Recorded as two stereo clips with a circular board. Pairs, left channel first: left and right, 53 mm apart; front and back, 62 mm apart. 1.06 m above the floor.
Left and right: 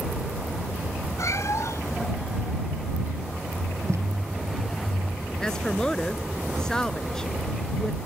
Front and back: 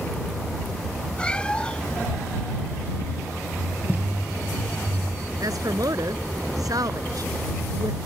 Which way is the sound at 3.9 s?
115° right.